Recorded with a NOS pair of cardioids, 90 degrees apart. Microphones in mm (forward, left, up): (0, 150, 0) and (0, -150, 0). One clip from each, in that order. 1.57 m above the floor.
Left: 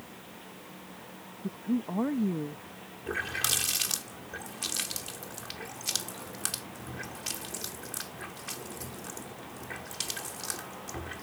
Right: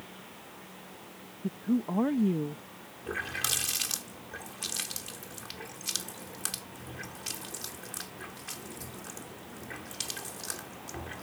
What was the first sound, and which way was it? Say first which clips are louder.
A woman speaking: right 2 dB; 15° right.